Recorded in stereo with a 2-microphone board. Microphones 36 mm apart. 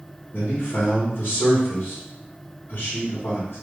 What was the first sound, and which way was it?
A man speaking, 65° left (ahead or behind).